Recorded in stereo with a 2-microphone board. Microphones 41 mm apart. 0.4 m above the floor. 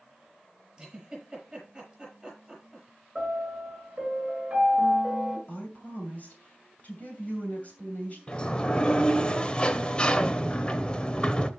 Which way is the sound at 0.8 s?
15° right (ahead or behind).